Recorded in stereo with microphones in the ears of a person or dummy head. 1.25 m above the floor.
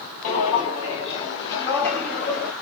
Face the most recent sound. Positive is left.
turn(degrees=5)  # may be behind; listen again after turning